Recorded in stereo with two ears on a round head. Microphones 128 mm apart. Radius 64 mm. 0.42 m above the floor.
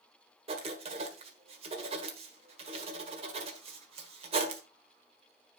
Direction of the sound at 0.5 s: 40° right (ahead or behind).